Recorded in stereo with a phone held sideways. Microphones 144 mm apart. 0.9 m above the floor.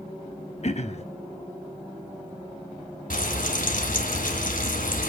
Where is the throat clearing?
50° left (ahead or behind), 1.2 m.